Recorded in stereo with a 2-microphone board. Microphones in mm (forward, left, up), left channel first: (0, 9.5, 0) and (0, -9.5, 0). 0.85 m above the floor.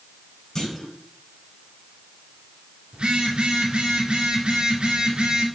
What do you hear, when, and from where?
0.6 s a clunk: 30° left (ahead or behind), 4 m
2.9 s a phone buzzing: 70° right (ahead or behind), 2.5 m